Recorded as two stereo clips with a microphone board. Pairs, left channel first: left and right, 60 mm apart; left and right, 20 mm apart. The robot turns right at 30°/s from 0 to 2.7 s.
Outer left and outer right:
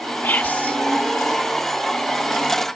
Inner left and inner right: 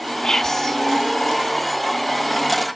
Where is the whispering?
30° left (ahead or behind), 1.5 m; by 0.8 s 20° left (ahead or behind), 1.5 m.